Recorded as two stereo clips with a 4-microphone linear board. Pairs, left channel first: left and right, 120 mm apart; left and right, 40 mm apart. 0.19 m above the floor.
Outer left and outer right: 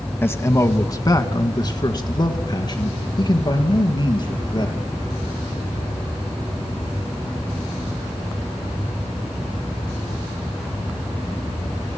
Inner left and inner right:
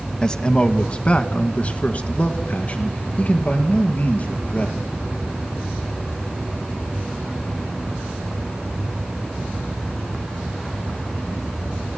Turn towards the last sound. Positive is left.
turn(degrees=40)  # may be behind; listen again after turning